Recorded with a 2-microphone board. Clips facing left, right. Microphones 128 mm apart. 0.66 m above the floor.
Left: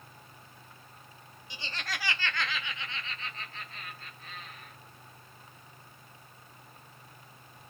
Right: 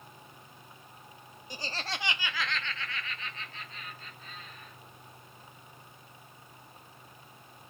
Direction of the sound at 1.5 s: 45° right (ahead or behind).